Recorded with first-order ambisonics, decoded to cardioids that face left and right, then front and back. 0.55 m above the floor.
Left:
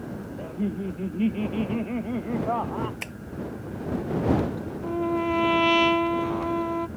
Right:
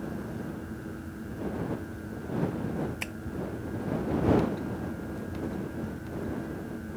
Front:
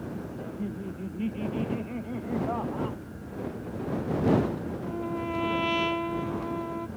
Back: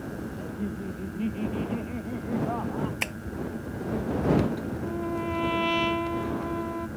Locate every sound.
0.4 s laughter: 90° left; by 2.9 s 85° left
3.0 s tapping: straight behind
4.8 s a trumpet: 95° left